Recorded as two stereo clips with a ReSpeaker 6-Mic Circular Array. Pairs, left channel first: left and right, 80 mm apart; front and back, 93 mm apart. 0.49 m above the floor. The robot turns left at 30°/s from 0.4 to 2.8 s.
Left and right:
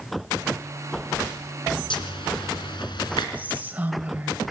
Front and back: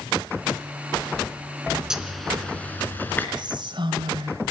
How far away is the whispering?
About 2.5 m.